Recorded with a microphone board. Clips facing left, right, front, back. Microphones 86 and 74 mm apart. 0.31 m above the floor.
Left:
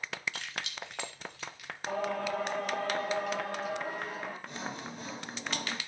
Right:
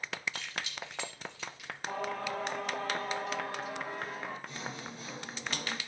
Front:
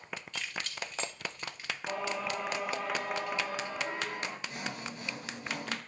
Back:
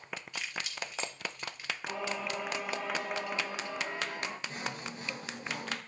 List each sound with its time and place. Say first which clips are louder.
0.3 s keys jangling: even, even; 105° left, 2 m; by 1.8 s 85° left, 3 m
1.9 s singing: left 3 dB, front 2 dB; 95° left, 5.5 m
4.5 s sawing: left 2 dB, even; 120° left, 5.5 m